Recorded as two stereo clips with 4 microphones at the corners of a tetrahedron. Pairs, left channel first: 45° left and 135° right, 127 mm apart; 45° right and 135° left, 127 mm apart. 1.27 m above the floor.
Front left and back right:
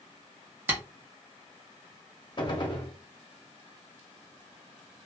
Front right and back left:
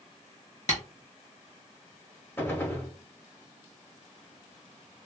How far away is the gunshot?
About 0.6 m.